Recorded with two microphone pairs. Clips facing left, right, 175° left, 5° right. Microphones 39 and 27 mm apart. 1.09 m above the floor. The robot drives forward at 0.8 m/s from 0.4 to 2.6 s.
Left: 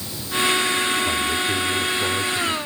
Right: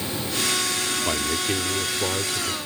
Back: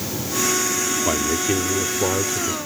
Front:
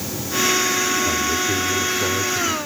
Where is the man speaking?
160° right; by 2.6 s 170° right.